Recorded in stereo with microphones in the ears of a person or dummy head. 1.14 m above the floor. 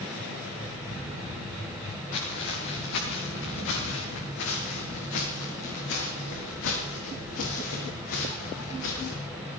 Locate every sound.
2.1 s footsteps: 60° left (ahead or behind), 7.5 m; by 9.2 s 70° left (ahead or behind), 11.5 m